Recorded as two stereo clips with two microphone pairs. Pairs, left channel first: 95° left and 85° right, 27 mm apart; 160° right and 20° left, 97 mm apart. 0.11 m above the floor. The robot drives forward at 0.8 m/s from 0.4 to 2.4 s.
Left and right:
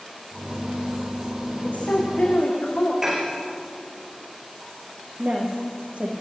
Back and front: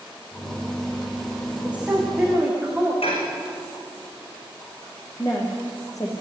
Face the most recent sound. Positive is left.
turn(degrees=-105)